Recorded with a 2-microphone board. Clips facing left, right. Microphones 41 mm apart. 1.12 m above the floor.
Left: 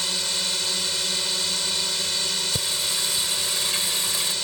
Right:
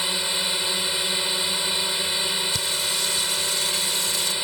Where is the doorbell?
No doorbell in this recording.